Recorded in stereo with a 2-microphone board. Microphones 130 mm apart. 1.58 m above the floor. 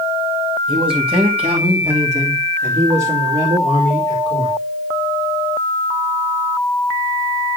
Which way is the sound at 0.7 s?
40° right (ahead or behind).